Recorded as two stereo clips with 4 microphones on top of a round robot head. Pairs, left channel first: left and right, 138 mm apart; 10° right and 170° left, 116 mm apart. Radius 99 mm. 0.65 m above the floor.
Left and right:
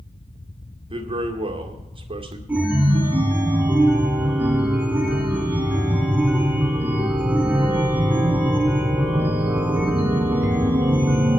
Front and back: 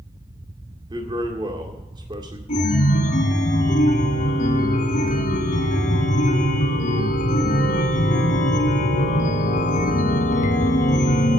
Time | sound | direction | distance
0.9 | a man speaking | 135° right | 2.0 m
2.5 | a chime | 10° right | 1.1 m